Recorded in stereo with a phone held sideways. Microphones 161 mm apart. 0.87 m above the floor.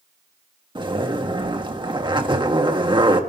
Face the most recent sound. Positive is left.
turn(degrees=-30)  # may be behind; listen again after turning